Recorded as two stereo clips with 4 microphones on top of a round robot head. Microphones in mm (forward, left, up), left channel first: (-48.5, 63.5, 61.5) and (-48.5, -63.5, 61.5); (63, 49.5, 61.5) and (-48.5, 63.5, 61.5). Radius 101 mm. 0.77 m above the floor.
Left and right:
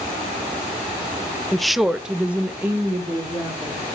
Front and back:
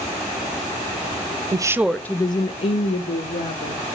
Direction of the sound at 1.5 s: 175° left.